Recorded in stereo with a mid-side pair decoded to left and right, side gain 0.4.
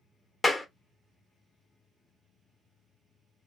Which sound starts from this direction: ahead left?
A clap, at 0.4 s.